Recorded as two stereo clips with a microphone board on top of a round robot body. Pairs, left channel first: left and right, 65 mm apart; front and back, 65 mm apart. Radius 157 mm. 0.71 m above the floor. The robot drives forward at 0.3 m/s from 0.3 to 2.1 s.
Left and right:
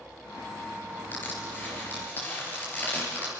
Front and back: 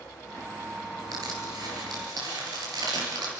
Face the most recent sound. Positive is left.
turn(degrees=155)